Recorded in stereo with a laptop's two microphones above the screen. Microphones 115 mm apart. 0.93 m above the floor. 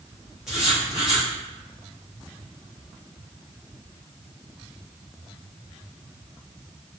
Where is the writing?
5° right (ahead or behind), 0.8 m.